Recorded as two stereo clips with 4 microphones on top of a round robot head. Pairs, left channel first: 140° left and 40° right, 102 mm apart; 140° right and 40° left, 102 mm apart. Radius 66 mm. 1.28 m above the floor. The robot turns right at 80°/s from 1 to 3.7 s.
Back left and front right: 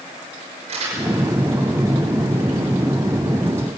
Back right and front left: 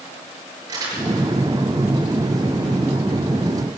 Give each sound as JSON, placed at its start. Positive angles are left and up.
{"t": 0.7, "sound": "crumpling", "azimuth_deg": -20, "distance_m": 5.5}